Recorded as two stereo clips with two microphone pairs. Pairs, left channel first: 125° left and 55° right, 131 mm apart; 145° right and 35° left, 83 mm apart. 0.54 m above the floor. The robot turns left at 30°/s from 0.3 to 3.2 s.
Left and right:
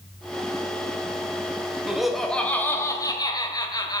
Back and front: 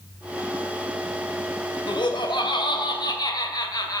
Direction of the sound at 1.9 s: 140° right.